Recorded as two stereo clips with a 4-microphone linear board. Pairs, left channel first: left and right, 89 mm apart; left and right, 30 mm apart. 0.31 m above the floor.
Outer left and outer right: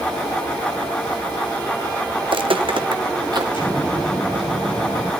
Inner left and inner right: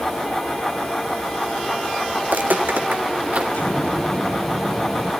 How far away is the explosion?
About 6 m.